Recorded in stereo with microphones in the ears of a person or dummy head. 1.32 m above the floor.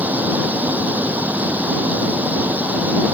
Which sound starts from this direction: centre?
A fan, at 0.0 s.